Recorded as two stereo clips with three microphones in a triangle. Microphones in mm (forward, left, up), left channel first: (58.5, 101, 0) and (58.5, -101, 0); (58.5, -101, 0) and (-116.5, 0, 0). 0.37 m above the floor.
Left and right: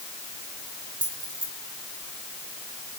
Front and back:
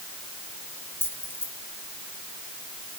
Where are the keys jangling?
110° right, 4.5 m.